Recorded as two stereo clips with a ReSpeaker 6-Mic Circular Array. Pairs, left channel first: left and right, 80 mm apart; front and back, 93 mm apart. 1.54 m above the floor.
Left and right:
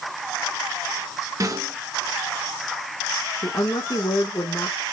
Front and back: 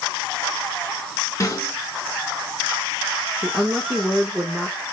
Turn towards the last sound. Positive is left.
turn(degrees=100)